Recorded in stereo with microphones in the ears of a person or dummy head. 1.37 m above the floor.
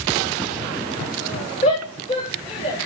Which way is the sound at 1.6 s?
35° left (ahead or behind).